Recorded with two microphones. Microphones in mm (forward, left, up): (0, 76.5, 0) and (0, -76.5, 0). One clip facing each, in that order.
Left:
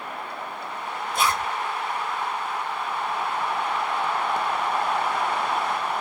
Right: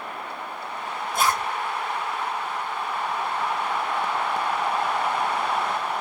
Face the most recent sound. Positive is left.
turn(degrees=-40)  # may be behind; listen again after turning